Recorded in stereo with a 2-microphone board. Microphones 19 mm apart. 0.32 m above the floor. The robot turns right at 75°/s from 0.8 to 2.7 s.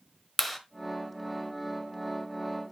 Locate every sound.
0.4 s a clap: centre (ahead or behind), 1.1 m